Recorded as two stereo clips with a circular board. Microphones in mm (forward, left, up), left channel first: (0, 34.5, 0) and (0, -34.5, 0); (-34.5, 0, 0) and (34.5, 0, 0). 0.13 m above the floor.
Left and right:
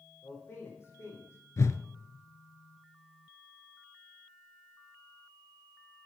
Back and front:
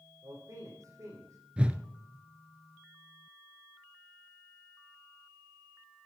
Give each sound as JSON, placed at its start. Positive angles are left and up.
{"t": 0.2, "sound": "a man speaking", "azimuth_deg": 35, "distance_m": 4.5}
{"t": 1.6, "sound": "a whoosh", "azimuth_deg": 70, "distance_m": 0.7}